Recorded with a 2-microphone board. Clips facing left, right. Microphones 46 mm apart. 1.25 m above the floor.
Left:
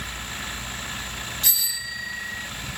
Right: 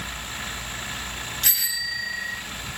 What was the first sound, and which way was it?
A bicycle bell, 65° right (ahead or behind).